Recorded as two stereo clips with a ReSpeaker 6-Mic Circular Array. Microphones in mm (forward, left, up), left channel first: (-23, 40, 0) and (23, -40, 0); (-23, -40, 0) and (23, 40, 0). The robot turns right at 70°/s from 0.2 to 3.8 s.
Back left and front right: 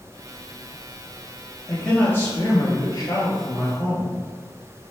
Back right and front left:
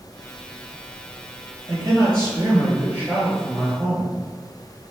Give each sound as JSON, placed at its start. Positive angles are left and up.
{"t": 1.7, "sound": "a man speaking", "azimuth_deg": 25, "distance_m": 1.9}